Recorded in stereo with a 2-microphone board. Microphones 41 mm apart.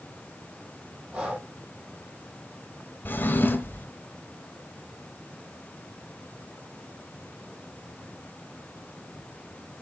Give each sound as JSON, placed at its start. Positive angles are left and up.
{"t": 1.1, "sound": "breathing", "side_deg": -25, "distance_m": 5.5}
{"t": 3.0, "sound": "a drawer", "side_deg": 50, "distance_m": 1.1}